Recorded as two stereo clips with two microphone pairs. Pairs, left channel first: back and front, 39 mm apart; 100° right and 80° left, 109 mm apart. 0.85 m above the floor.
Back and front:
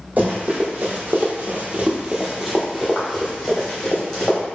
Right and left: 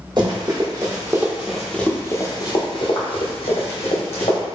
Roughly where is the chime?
No chime in this recording.